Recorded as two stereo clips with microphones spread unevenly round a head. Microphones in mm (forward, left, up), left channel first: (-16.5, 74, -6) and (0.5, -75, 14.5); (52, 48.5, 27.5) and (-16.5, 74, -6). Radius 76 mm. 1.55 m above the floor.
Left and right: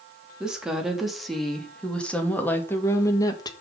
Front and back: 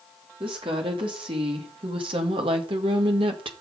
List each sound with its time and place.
0.4 s a woman speaking: 165° right, 3 m; by 3.5 s 165° left, 1.7 m